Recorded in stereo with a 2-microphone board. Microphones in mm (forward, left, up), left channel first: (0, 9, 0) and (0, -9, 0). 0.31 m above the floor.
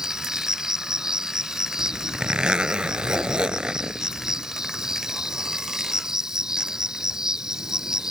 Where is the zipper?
55° right (ahead or behind).